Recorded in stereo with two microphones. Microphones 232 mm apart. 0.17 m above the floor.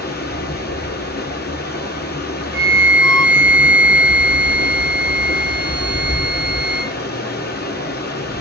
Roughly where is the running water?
Left.